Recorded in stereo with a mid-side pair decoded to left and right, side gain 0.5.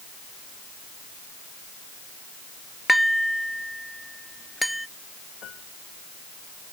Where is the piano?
60° left.